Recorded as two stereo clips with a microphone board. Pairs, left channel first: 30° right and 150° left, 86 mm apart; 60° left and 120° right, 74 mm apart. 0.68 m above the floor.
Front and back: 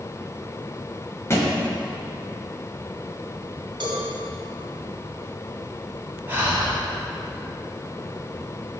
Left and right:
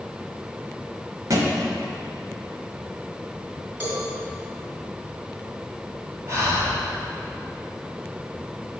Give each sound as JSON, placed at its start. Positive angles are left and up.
{"t": 1.3, "sound": "a thud", "azimuth_deg": -85, "distance_m": 1.0}
{"t": 3.8, "sound": "a cowbell", "azimuth_deg": 180, "distance_m": 2.0}
{"t": 6.3, "sound": "breathing", "azimuth_deg": -150, "distance_m": 1.8}